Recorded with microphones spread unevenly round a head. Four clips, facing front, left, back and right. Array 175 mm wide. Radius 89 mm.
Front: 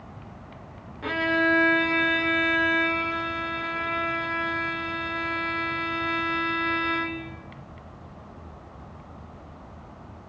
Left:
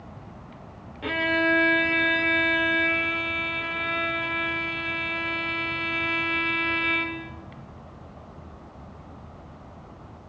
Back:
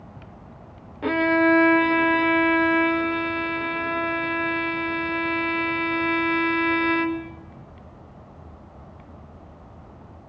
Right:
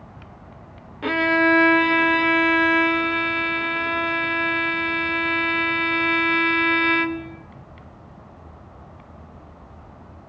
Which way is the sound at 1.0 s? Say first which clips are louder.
Right 6 dB, back 5 dB; 155° right.